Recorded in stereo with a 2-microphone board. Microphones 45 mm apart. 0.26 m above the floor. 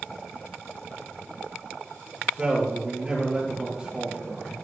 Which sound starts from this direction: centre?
A man speaking, at 2.2 s.